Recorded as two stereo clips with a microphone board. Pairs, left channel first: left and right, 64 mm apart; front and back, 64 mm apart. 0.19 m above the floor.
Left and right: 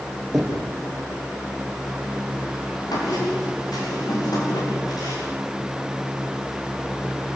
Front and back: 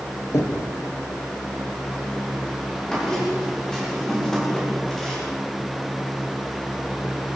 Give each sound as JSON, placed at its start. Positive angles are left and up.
{"t": 0.3, "sound": "knocking", "azimuth_deg": -5, "distance_m": 5.0}
{"t": 2.9, "sound": "a squeak", "azimuth_deg": 80, "distance_m": 9.5}